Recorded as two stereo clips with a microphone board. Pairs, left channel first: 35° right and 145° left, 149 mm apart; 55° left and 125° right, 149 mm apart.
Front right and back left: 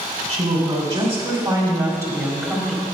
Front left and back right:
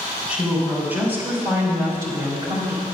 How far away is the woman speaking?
About 2 m.